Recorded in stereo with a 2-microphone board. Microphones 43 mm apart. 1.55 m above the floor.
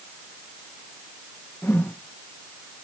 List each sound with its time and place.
1.6 s a whoosh: 60° left (ahead or behind), 1.0 m